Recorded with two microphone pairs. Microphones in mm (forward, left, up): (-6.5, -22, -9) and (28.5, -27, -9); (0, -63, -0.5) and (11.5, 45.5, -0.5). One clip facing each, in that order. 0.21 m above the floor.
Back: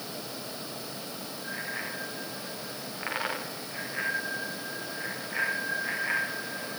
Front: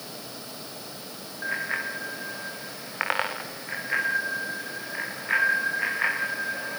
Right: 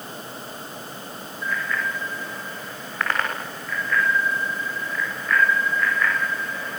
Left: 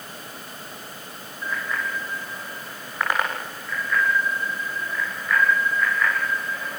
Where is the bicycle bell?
15° left, 7.5 m; by 6.8 s 5° right, 14 m.